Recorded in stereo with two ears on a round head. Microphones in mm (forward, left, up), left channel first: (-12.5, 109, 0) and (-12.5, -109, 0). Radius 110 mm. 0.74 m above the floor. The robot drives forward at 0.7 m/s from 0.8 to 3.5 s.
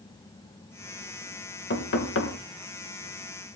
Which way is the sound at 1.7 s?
45° left (ahead or behind).